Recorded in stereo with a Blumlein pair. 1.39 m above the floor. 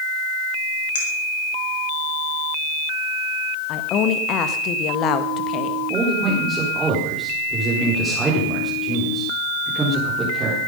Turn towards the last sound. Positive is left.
turn(degrees=-10)